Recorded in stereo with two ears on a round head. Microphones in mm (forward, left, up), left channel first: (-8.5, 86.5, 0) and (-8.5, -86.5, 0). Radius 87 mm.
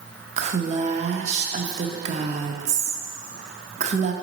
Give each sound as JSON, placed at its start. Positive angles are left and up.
{"t": 0.4, "sound": "a woman speaking", "side_deg": -35, "distance_m": 0.7}